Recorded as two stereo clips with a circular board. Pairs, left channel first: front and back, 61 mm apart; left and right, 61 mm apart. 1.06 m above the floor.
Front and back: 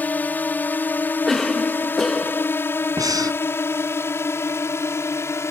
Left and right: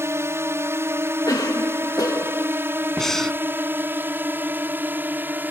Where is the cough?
85° left.